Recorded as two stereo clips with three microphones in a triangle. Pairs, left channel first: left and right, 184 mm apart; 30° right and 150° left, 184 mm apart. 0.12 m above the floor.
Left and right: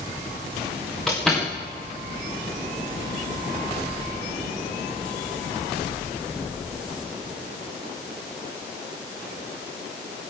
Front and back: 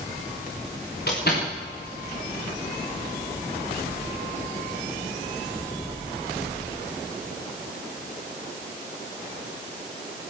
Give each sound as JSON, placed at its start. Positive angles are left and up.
{"t": 1.1, "sound": "a door slam", "azimuth_deg": 0, "distance_m": 9.5}